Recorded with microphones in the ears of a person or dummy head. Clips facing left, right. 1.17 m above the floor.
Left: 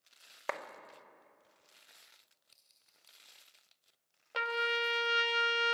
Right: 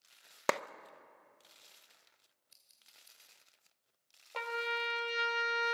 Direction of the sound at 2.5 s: 15° right (ahead or behind).